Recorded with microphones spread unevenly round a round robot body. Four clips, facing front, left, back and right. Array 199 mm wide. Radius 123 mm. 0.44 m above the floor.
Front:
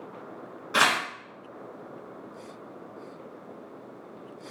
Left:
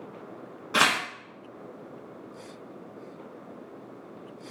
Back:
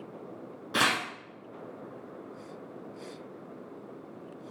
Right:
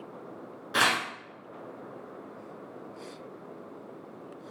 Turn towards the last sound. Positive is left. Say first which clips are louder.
# left 2 dB, front 4 dB
turn(degrees=130)